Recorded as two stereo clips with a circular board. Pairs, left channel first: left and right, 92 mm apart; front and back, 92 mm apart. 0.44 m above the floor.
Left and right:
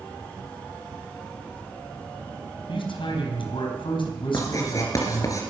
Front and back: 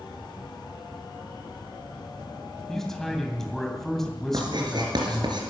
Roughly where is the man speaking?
Left.